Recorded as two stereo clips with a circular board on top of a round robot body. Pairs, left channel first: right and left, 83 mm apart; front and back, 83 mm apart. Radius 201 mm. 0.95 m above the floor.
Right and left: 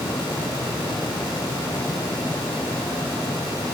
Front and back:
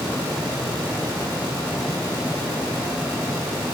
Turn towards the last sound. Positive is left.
No sound to turn to.